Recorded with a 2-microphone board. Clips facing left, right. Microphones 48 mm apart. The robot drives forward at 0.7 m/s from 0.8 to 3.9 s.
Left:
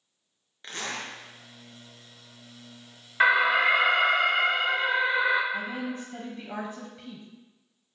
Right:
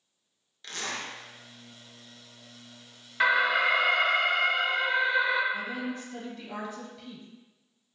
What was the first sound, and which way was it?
A zipper, 25° left (ahead or behind).